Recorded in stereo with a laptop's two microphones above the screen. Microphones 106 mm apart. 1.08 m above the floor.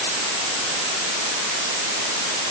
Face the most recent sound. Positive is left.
No sound to turn to.